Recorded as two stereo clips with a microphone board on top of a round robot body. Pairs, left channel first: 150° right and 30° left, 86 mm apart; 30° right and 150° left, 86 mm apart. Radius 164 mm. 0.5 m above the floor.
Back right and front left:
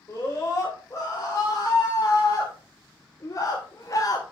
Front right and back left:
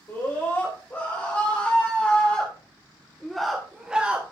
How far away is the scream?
About 3.5 m.